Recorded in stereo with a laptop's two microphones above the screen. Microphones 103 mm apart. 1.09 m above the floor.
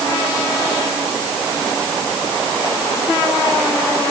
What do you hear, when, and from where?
Only background noise.